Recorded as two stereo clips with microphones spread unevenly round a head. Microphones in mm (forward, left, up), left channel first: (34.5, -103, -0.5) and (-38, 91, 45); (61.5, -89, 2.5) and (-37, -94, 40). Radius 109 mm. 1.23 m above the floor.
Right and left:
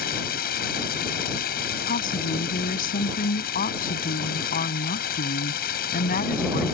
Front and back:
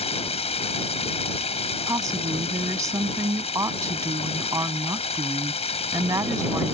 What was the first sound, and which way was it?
Running water, 20° right.